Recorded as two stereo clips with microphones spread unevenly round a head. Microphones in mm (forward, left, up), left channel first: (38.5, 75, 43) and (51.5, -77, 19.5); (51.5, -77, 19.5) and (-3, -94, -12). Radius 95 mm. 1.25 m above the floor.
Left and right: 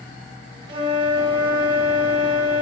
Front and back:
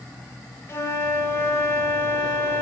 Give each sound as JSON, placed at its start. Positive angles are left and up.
{"t": 0.7, "sound": "a flute", "azimuth_deg": -25, "distance_m": 6.0}